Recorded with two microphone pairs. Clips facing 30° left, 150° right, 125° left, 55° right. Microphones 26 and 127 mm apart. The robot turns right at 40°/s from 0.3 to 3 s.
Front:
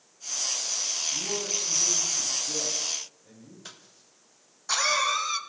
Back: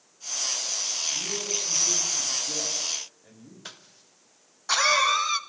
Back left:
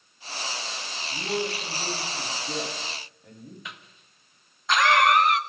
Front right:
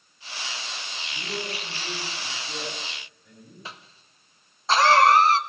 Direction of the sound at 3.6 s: 90° right.